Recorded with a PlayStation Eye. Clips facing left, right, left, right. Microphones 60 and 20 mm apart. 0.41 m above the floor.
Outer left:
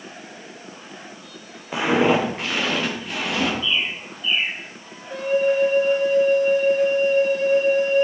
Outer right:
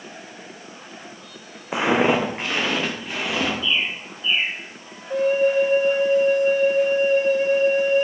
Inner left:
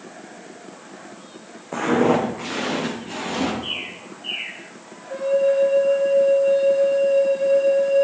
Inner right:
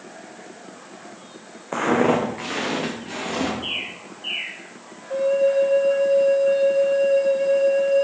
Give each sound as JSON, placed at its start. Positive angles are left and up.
{"t": 1.7, "sound": "footsteps", "side_deg": -20, "distance_m": 1.5}
{"t": 3.6, "sound": "a bird", "side_deg": -30, "distance_m": 4.0}
{"t": 5.1, "sound": "a flute", "side_deg": -25, "distance_m": 1.5}